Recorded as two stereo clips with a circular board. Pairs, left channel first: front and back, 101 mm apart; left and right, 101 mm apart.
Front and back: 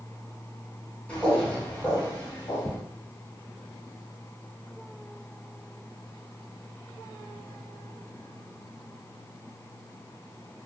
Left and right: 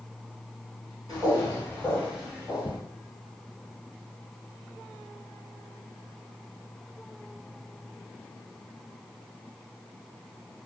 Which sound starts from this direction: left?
Footsteps, at 1.1 s.